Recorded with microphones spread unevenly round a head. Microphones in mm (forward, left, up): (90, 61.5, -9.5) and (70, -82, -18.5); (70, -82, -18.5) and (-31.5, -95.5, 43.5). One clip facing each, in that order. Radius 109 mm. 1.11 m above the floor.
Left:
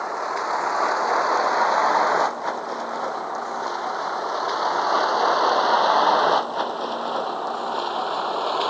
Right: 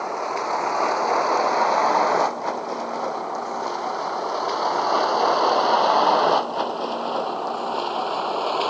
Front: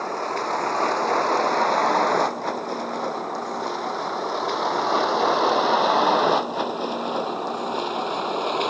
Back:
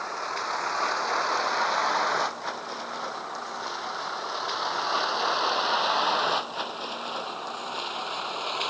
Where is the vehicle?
20° right; by 8.7 s 15° right.